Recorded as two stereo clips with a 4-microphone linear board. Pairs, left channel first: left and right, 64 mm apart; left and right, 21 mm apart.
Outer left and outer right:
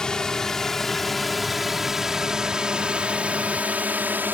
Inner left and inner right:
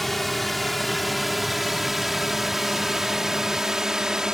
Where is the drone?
10° left (ahead or behind); by 4.3 s 30° right (ahead or behind).